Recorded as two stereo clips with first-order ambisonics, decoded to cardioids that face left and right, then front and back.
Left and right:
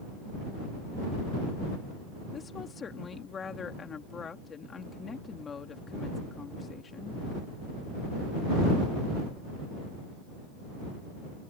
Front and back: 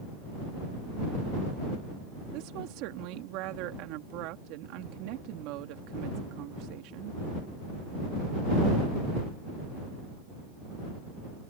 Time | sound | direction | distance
2.3 | a woman speaking | 160° left | ?